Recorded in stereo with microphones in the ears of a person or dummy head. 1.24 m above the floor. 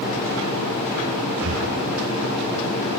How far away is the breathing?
About 0.9 m.